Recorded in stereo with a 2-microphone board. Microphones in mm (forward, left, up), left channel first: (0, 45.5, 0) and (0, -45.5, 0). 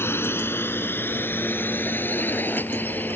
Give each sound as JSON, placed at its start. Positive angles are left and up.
{"t": 0.0, "sound": "a drone", "side_deg": 25}